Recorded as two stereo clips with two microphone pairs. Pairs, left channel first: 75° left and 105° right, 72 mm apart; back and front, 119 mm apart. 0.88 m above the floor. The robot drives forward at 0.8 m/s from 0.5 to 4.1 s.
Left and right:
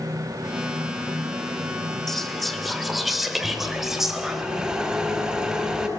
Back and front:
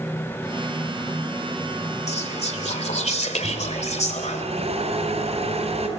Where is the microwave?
20° right, 5 m; by 5.9 s 25° right, 4.5 m.